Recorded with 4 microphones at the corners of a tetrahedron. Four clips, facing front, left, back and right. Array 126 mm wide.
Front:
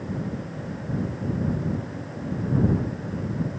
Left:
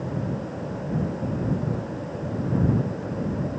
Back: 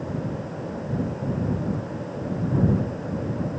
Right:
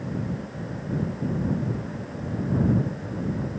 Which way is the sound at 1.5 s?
40° left.